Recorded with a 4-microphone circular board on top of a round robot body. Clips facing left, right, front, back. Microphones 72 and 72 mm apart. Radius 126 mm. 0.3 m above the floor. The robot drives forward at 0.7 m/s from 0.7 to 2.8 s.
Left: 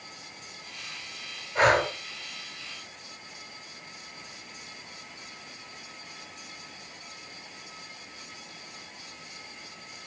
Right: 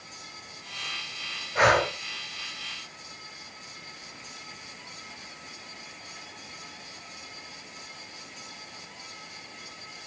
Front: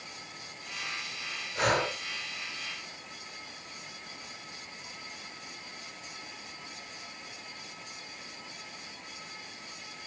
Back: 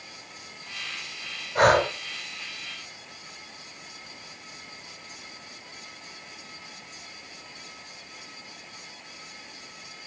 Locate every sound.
1.6 s breathing: 170° right, 2.5 m